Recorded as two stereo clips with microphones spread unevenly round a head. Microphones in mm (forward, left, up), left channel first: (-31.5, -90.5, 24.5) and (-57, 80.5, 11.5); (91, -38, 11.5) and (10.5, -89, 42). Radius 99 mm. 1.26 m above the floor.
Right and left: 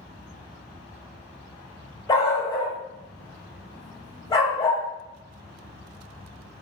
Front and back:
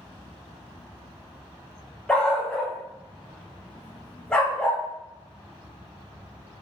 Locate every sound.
2.1 s a dog barking: 75° right, 0.7 m